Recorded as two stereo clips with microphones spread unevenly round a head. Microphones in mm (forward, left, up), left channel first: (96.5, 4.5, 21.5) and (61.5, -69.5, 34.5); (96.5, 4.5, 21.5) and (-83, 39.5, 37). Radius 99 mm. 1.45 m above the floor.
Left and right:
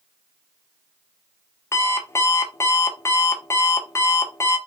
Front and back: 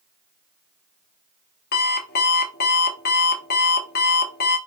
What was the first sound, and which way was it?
An alarm clock, 10° left.